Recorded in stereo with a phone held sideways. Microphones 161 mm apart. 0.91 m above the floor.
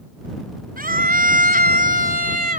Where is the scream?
70° right (ahead or behind); by 2.6 s 60° right (ahead or behind).